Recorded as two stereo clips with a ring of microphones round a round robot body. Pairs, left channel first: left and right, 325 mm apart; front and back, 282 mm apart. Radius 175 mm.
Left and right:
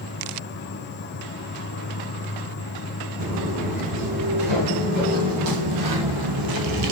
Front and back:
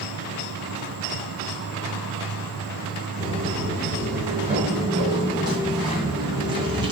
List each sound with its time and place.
0.0 s an insect: 145° left, 1.2 m
3.2 s footsteps: 100° right, 5 m; by 6.9 s 105° right, 1.3 m